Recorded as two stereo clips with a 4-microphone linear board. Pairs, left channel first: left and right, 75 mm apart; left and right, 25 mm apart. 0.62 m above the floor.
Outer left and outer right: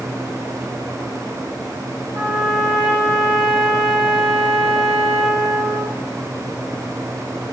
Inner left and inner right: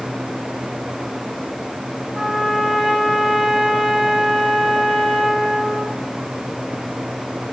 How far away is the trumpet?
About 4.5 m.